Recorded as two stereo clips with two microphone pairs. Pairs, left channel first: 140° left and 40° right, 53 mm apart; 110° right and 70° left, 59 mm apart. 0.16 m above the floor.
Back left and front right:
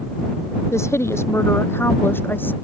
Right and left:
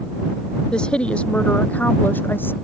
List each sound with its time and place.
0.7 s a woman speaking: 170° left; by 2.5 s 165° right